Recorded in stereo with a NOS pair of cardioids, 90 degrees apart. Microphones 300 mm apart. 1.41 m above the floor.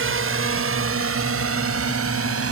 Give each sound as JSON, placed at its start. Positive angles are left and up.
{"t": 0.0, "sound": "a drone", "azimuth_deg": -40}